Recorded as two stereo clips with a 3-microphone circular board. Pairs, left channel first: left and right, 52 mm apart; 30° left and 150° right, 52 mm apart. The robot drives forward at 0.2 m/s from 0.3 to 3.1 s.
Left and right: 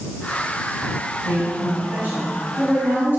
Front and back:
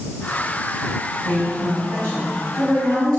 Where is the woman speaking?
130° right, 2.5 m; by 3.2 s 135° right, 2.5 m.